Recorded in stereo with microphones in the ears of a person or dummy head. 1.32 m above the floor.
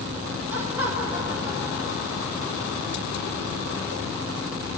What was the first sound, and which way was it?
Laughter, 10° right (ahead or behind).